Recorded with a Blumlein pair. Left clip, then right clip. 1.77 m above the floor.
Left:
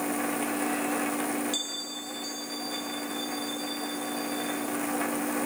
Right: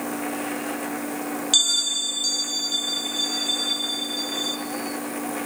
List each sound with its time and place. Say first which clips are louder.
1.5 s a bell: right 13 dB; 35° right, 1.4 m